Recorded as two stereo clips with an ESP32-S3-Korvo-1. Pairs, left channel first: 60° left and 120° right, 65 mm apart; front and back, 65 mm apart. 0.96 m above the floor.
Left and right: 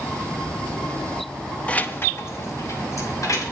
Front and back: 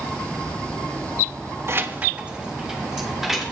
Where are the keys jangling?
130° left, 0.6 m; by 3.4 s 95° left, 2 m.